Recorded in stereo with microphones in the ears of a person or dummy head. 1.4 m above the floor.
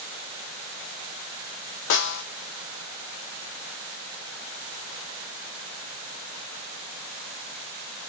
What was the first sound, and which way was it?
A snare drum, 65° left (ahead or behind).